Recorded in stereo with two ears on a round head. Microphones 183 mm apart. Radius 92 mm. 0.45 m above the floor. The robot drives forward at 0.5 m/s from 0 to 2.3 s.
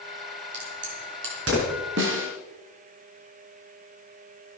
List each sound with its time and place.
0.5 s a crack: 60° right (ahead or behind), 4 m; by 1.8 s 65° right (ahead or behind), 4 m
2.0 s a snare drum: 65° right (ahead or behind), 3 m